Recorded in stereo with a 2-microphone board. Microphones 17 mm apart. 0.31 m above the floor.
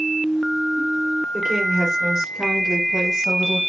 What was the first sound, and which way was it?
A woman speaking, 55° right (ahead or behind).